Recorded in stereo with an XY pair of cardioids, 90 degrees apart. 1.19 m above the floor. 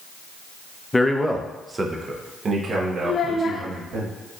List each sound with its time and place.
0.9 s a man speaking: 20° left, 0.6 m; by 4.0 s 65° right, 1.8 m
3.0 s a child speaking: 55° left, 0.5 m